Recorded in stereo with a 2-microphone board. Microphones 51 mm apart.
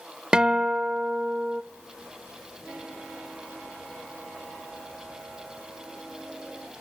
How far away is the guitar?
About 0.5 m.